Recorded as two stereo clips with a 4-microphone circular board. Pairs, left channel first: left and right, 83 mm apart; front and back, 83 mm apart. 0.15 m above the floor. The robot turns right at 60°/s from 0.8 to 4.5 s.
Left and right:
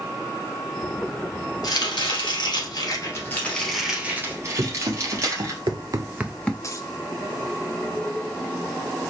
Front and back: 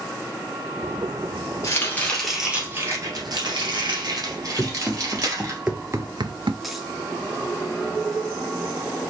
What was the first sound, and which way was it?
Chopping, 50° left.